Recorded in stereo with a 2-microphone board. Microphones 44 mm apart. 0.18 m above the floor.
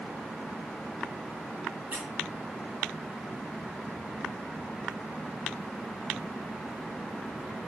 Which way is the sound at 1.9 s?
40° right (ahead or behind).